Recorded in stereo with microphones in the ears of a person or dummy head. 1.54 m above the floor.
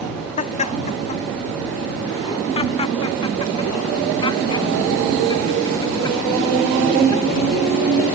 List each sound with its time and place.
0.4 s laughter: 40° left (ahead or behind); by 8.2 s 20° left (ahead or behind)